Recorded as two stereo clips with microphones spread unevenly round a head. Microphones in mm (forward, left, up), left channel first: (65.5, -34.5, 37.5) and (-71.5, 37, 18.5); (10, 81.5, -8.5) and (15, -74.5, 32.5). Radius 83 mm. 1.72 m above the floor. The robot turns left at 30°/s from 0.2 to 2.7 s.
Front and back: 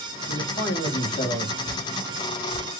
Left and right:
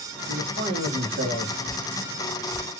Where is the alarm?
I don't hear an alarm.